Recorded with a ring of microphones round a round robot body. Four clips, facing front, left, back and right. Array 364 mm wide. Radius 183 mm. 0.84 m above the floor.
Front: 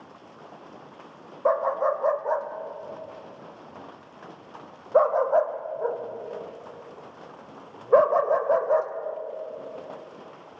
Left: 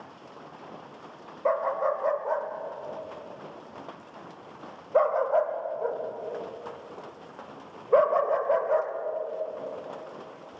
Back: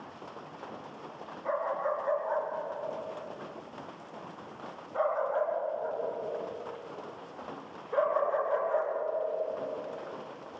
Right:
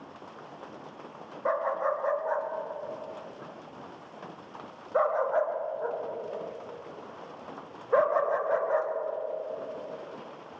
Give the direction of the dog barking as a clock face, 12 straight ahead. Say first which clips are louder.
Left 2 dB, front 8 dB; 11 o'clock.